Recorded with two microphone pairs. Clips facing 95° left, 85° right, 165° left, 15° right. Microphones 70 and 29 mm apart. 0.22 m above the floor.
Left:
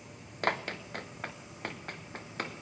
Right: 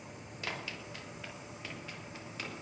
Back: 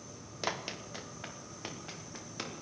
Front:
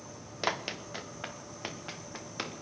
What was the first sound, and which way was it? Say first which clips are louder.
Running footsteps: left 9 dB, front 4 dB; 55° left.